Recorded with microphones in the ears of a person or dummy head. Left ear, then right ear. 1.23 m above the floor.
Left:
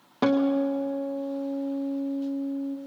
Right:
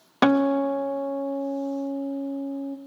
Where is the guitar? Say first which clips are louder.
Right 3 dB; 45° right (ahead or behind), 0.6 m.